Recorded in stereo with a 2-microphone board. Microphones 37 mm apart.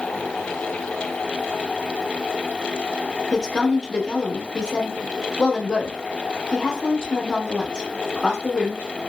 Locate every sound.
3.3 s a woman speaking: 25° left (ahead or behind), 0.7 m